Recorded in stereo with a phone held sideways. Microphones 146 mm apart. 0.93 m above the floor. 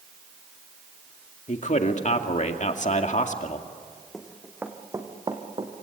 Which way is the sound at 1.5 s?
55° left (ahead or behind).